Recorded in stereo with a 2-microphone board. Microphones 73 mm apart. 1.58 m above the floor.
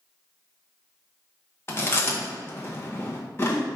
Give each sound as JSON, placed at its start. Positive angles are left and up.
{"t": 1.7, "sound": "chewing", "side_deg": 35, "distance_m": 1.2}